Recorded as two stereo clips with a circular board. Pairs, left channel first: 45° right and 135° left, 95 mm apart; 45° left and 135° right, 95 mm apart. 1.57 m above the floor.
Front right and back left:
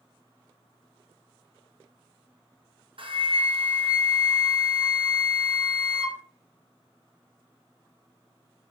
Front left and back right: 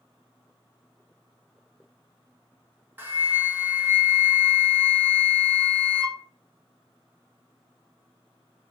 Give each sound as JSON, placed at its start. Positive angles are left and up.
{"t": 3.0, "sound": "a flute", "azimuth_deg": 155, "distance_m": 1.2}